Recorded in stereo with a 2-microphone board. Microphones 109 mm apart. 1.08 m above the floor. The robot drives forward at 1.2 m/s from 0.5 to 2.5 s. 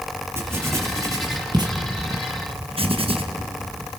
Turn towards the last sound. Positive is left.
turn(degrees=-60)  # may be behind; listen again after turning